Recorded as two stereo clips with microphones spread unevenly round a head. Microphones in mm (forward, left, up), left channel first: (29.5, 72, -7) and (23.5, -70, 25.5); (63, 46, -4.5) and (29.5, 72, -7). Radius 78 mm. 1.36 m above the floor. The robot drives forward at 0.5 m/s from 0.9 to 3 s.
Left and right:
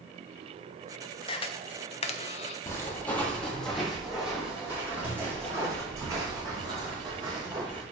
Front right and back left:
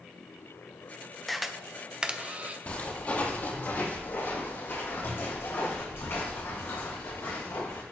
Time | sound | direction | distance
1.3 | a camera shutter | 50° left | 0.9 m
2.7 | footsteps | 10° left | 2.5 m